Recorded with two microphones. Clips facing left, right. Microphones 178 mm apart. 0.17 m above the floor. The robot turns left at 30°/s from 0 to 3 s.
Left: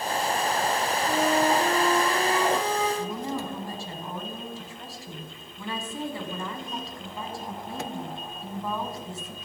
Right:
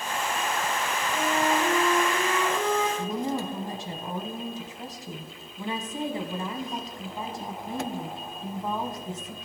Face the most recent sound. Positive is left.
turn(degrees=-20)  # may be behind; listen again after turning